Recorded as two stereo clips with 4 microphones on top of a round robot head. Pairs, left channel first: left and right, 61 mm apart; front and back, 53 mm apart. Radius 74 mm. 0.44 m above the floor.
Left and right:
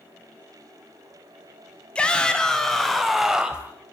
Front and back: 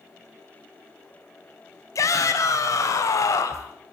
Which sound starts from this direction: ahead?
A shout, at 1.9 s.